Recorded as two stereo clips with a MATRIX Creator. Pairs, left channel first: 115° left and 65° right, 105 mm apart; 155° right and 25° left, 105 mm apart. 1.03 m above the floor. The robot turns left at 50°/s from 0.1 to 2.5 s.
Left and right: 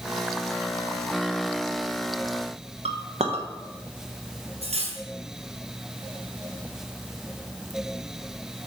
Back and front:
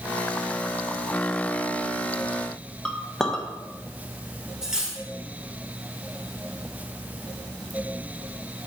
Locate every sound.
2.9 s a clink: 70° right, 1.1 m
4.6 s cutlery clinking: 60° right, 1.6 m